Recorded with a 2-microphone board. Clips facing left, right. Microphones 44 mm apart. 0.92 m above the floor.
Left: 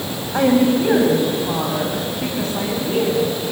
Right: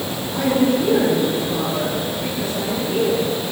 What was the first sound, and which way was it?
A woman speaking, 60° left (ahead or behind).